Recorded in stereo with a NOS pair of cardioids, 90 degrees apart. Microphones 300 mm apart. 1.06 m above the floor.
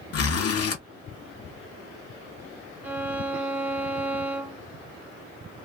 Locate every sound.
0.1 s a zipper: 60° left, 1.2 m
2.8 s a violin: 5° right, 0.6 m